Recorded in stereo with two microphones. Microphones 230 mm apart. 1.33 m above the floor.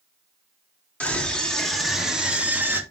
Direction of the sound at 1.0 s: 5° left (ahead or behind).